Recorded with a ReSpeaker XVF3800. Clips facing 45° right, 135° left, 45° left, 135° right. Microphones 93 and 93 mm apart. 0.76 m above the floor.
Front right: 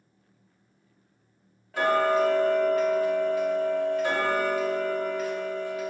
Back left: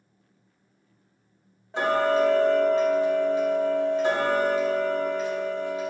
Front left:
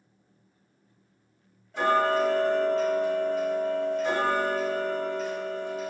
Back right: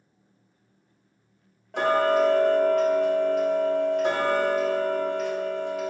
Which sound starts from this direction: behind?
Ticking, at 1.7 s.